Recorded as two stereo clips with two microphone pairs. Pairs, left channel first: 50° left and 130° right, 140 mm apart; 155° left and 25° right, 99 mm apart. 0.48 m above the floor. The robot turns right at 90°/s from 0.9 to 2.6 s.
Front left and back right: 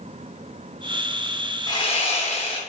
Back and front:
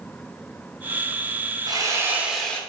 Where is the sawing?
Straight ahead, 0.7 m; by 2.6 s 85° left, 0.7 m.